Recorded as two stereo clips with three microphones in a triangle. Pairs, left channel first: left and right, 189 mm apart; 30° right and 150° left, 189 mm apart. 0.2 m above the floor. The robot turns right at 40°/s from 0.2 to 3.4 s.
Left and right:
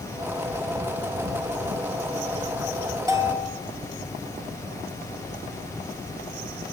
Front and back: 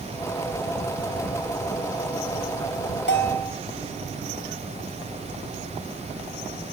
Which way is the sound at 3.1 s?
20° right.